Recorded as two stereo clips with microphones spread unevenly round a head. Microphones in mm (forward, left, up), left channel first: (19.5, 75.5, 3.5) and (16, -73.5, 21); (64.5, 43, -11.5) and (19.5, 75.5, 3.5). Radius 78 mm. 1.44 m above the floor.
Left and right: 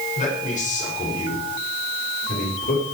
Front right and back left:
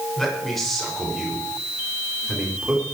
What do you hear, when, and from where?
0.2 s a man speaking: 45° left, 7 m; by 2.8 s 70° left, 5 m